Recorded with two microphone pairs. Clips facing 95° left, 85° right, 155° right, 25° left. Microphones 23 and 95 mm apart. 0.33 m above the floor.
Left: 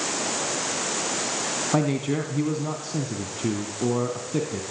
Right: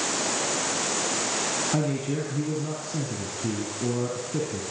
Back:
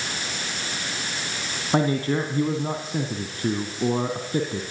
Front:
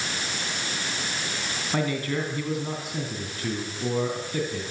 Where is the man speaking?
150° left, 3 m.